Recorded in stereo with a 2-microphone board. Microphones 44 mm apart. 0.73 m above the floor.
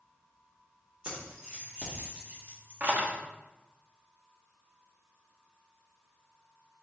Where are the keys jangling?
25° right (ahead or behind), 1.7 m; by 3.2 s 45° right (ahead or behind), 0.6 m.